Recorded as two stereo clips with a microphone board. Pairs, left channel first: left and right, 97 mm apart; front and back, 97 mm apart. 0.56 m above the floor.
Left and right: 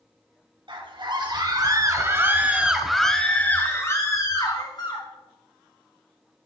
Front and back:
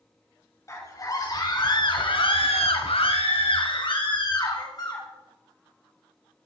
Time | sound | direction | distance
0.7 | a scream | 55° right | 4 m